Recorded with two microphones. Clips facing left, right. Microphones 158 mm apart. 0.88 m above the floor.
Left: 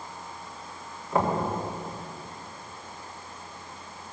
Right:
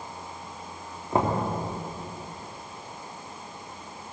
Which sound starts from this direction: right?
Knocking, at 1.1 s.